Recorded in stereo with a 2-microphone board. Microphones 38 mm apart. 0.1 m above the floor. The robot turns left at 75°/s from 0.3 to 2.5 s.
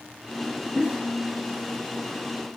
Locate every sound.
0.8 s a giggle: 25° right (ahead or behind), 1.3 m